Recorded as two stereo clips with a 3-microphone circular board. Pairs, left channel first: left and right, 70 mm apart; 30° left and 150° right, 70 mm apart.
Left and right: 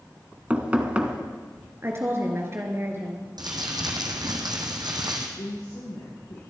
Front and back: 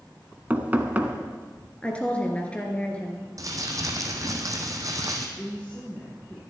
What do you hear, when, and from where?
0.5 s knocking: 130° right, 1.3 m
1.8 s a woman speaking: 40° right, 2.5 m
3.4 s crumpling: 110° right, 2 m
5.4 s a woman speaking: 100° left, 5 m